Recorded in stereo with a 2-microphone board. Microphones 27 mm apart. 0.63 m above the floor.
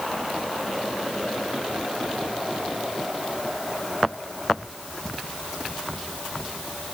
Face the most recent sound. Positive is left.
No sound to turn to.